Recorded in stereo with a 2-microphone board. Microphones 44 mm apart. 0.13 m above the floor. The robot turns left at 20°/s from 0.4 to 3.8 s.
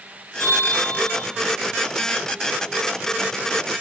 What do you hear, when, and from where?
0.4 s a bell: 65° left (ahead or behind), 5 m; by 1.2 s 75° left (ahead or behind), 5 m